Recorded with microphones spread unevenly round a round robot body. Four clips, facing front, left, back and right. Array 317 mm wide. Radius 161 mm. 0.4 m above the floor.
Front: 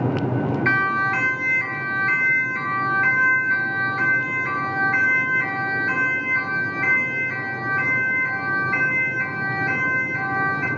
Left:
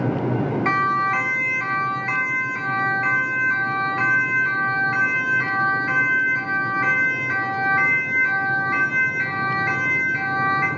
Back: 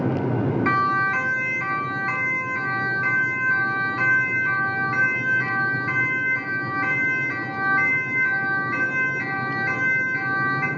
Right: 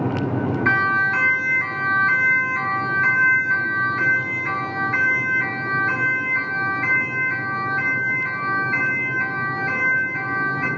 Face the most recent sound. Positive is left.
turn(degrees=95)